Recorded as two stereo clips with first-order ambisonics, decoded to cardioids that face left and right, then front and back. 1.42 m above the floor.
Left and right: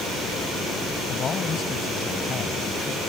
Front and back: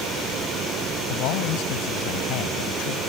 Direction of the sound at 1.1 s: 30° left.